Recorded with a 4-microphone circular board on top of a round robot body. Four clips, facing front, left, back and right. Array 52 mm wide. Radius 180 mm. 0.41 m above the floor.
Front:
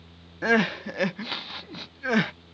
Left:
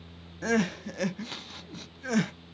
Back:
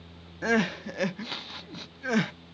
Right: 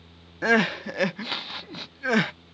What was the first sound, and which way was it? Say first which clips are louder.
Crying: right 6 dB, front 3 dB; 65° right.